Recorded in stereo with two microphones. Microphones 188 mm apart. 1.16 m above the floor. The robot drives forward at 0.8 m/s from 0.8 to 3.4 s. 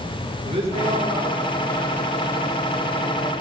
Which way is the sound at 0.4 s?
35° right (ahead or behind).